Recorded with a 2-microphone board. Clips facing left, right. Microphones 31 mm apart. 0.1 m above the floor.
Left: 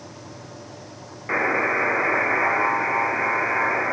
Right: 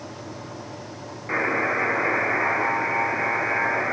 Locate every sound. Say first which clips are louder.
1.3 s a buzzer: left 2 dB; 10° left (ahead or behind), 2 m